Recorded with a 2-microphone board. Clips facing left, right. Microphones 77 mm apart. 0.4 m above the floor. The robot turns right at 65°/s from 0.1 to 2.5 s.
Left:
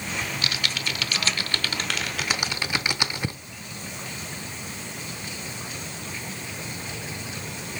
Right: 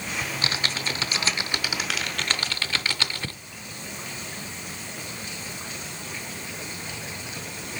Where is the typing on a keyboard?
30° right (ahead or behind), 0.6 m; by 3.4 s 15° left (ahead or behind), 0.6 m.